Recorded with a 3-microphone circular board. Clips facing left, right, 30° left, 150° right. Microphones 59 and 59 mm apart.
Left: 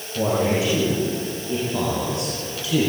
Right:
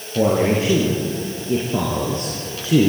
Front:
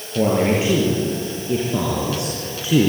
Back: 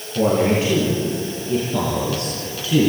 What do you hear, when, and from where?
0.1 s a man speaking: 40° right, 5.5 m